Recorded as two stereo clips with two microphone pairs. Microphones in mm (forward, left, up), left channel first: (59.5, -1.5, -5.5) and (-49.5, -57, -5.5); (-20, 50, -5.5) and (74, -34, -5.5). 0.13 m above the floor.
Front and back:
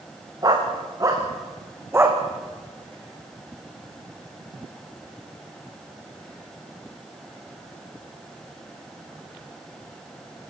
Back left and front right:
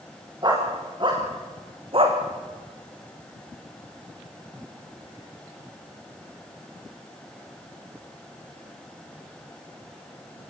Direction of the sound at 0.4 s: 95° right.